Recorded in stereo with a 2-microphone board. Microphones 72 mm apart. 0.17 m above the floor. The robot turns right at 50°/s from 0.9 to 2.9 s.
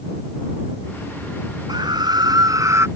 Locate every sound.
1.7 s a scream: 100° right; by 2.9 s 40° right